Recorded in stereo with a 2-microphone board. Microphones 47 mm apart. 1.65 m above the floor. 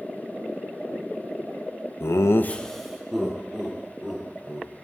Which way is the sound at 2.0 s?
65° left (ahead or behind).